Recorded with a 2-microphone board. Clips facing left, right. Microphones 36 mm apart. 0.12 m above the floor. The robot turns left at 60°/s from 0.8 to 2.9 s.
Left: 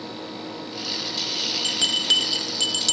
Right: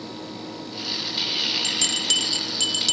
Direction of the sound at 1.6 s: 30° left (ahead or behind).